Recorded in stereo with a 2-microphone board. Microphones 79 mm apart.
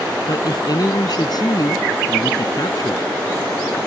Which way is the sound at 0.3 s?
55° left (ahead or behind).